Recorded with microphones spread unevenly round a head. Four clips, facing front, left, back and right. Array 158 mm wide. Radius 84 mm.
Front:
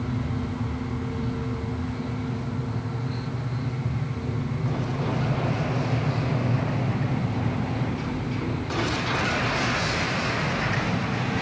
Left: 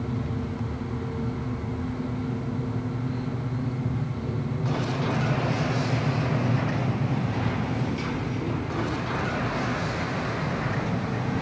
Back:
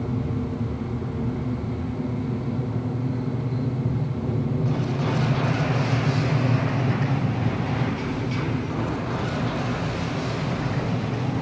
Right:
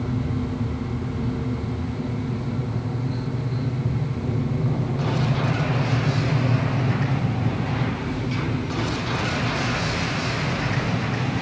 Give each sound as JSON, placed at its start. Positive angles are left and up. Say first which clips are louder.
{"t": 0.0, "sound": "an aircraft", "louder": "right 4 dB, back 2 dB", "azimuth_deg": -150}